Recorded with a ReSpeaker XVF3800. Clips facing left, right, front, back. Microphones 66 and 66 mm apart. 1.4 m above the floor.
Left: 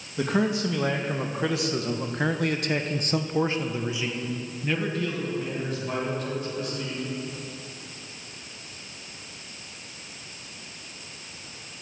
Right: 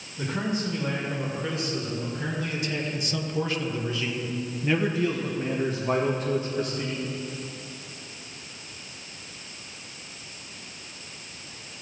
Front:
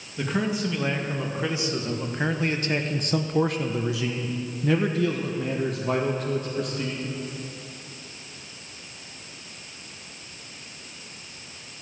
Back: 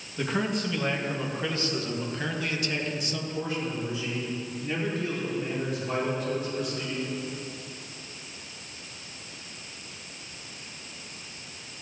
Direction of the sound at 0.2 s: 90° left.